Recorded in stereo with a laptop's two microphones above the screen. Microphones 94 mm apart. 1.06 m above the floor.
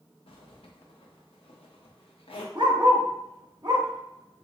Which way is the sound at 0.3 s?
75° left (ahead or behind).